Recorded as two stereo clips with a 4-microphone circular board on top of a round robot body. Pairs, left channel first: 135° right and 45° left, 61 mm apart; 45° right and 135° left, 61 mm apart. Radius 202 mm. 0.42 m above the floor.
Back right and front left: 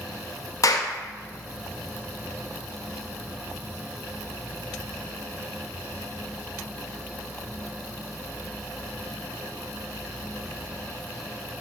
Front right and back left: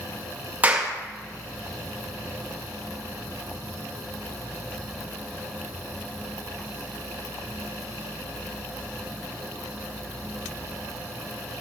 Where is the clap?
160° right, 2.5 m.